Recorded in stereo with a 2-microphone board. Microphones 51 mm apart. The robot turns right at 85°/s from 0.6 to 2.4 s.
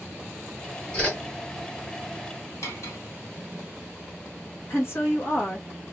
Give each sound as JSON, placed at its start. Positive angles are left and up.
{"t": 0.9, "sound": "a whoosh", "side_deg": 20, "distance_m": 1.6}
{"t": 2.6, "sound": "cutlery clinking", "side_deg": 80, "distance_m": 1.7}
{"t": 4.7, "sound": "a woman speaking", "side_deg": 55, "distance_m": 1.4}